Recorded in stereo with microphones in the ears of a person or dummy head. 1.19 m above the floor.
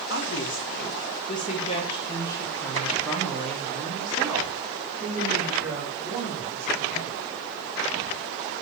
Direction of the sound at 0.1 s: 65° left (ahead or behind).